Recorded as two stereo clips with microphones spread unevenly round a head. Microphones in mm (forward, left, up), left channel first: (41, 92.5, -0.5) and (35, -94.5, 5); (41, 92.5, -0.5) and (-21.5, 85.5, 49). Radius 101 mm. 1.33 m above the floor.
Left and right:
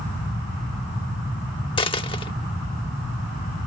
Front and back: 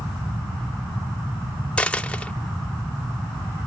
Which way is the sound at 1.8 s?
135° left.